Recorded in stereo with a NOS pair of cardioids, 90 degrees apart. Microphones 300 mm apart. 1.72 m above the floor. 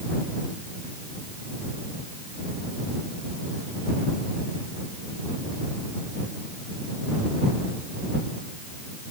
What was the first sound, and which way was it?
Only background noise.